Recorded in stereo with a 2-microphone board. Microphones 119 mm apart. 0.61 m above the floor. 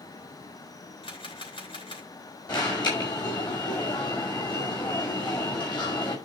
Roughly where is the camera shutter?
Left.